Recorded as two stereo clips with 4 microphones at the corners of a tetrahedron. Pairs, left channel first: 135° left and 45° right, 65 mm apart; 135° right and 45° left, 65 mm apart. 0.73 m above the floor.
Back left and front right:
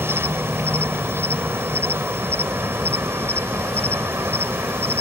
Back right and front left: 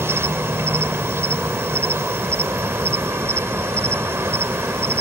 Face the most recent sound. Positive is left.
turn(degrees=0)